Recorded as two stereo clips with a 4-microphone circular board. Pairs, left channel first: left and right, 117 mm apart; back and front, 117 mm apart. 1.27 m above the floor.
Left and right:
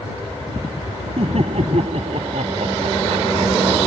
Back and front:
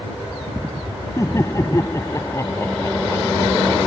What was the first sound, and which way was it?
Laughter, 115° right.